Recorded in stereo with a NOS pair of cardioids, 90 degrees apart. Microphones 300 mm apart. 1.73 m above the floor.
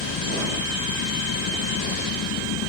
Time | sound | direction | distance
0.0 | an engine running | 70° left | ?